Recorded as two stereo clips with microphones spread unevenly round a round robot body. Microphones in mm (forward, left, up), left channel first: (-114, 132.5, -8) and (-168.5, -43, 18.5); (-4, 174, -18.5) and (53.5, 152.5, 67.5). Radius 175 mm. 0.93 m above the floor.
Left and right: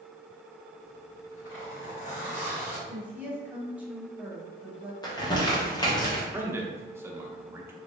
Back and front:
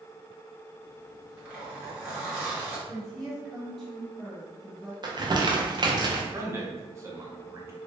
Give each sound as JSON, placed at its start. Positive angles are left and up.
{"t": 0.8, "sound": "a zipper", "azimuth_deg": 65, "distance_m": 1.7}
{"t": 2.9, "sound": "a woman speaking", "azimuth_deg": 165, "distance_m": 1.4}
{"t": 5.0, "sound": "crumpling", "azimuth_deg": 80, "distance_m": 0.9}
{"t": 6.3, "sound": "a man speaking", "azimuth_deg": 175, "distance_m": 0.7}